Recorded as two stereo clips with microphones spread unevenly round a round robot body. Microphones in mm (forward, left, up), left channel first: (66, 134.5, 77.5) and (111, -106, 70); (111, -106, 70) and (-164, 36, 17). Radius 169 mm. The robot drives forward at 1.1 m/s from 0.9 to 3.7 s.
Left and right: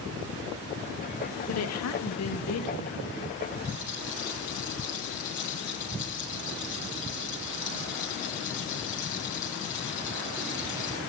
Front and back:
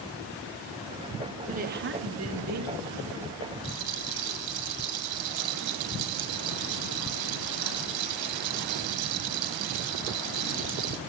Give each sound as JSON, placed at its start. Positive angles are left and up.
{"t": 1.5, "sound": "a woman speaking", "azimuth_deg": 90, "distance_m": 1.9}
{"t": 3.6, "sound": "a rattle", "azimuth_deg": 165, "distance_m": 1.7}